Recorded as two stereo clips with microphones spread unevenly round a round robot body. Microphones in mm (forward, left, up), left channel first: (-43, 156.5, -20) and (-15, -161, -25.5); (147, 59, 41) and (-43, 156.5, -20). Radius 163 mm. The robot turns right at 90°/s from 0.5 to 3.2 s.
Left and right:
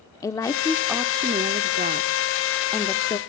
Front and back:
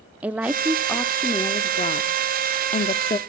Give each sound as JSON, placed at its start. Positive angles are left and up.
{"t": 0.2, "sound": "a woman speaking", "azimuth_deg": 165, "distance_m": 0.7}